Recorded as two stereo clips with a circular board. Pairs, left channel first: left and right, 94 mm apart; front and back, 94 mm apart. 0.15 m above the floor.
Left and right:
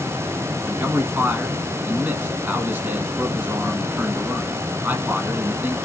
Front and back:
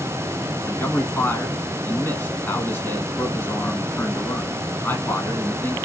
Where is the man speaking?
40° right, 1.2 m.